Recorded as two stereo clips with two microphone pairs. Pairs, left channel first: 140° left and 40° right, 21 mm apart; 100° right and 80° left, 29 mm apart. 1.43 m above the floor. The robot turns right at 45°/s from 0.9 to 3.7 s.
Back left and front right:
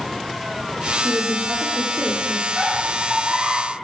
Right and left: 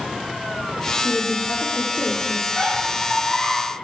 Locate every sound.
1.0 s a woman speaking: 105° right, 0.7 m; by 2.5 s 35° right, 0.7 m
2.6 s a squeak: 145° right, 2.5 m; by 3.6 s 100° right, 2.5 m